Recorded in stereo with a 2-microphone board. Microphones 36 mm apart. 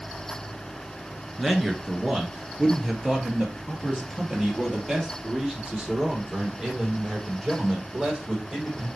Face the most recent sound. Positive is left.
turn(degrees=-15)  # may be behind; listen again after turning